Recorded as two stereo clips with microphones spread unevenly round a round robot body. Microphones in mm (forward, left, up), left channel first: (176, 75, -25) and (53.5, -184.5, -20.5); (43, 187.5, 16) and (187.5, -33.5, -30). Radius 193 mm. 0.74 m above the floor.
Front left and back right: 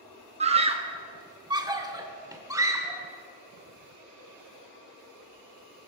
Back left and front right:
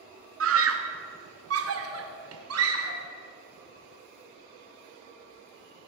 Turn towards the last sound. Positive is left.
turn(degrees=-35)